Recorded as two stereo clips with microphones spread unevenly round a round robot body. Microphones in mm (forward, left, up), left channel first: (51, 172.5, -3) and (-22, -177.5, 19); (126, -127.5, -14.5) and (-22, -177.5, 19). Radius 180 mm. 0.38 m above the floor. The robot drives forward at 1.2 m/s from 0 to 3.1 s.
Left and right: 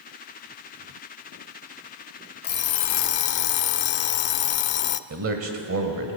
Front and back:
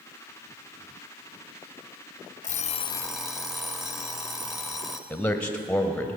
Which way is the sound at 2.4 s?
20° left.